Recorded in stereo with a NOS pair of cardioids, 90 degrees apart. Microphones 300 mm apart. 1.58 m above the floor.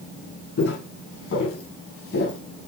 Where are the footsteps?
50° left, 5 m.